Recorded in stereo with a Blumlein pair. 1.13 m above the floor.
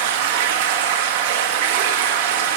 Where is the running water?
55° right, 1.3 m.